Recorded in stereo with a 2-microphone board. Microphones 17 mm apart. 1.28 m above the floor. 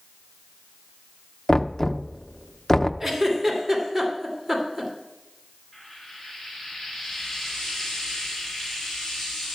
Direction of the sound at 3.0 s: 15° right (ahead or behind).